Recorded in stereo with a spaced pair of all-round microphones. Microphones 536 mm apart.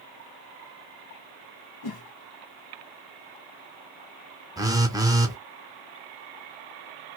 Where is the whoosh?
45° left (ahead or behind), 0.6 m.